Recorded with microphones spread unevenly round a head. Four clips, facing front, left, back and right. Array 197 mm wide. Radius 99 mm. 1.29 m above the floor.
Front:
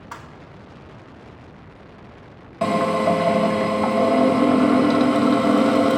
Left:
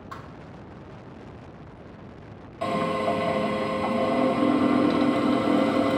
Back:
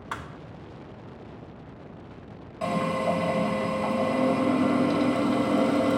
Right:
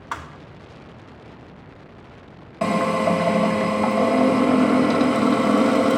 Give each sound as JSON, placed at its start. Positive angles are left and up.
{"t": 0.1, "sound": "a thud", "azimuth_deg": -105, "distance_m": 0.8}
{"t": 2.6, "sound": "a drill", "azimuth_deg": -45, "distance_m": 2.0}